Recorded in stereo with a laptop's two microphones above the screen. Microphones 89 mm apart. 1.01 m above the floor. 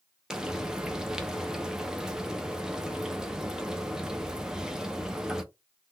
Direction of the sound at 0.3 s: 5° right (ahead or behind).